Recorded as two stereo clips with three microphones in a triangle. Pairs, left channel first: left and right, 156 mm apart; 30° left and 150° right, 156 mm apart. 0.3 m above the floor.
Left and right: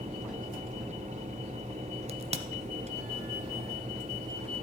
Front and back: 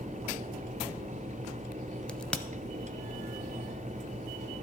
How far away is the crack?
About 0.5 m.